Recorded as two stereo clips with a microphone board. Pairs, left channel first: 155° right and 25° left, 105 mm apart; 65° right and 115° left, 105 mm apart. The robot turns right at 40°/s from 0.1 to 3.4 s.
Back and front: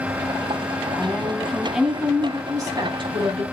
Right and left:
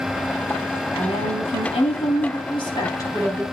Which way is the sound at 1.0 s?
95° right.